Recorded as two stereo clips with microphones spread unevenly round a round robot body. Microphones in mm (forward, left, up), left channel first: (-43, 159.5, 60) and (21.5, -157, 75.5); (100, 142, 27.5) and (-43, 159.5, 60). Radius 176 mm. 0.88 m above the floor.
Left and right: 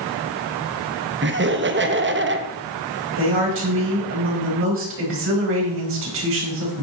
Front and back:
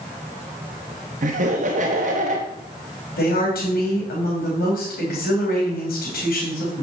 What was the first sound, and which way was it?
Laughter, 135° right.